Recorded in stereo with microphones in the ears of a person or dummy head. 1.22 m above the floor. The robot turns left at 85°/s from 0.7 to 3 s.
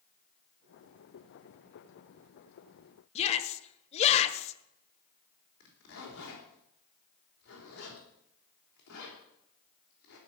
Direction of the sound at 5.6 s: 70° left (ahead or behind).